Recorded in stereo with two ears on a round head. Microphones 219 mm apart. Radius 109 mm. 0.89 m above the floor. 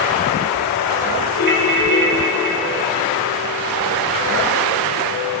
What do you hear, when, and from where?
1.4 s a ringtone: 45° right (ahead or behind), 1.9 m